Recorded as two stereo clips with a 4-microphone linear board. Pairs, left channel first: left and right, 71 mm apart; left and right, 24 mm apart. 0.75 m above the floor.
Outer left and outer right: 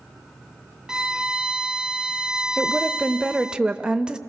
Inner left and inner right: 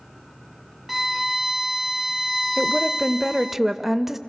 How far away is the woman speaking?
About 0.6 m.